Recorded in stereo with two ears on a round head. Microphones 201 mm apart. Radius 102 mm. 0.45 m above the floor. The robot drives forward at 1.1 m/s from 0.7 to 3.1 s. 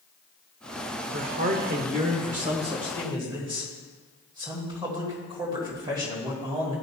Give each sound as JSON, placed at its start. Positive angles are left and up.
{"t": 1.1, "sound": "a man speaking", "side_deg": -40, "distance_m": 1.2}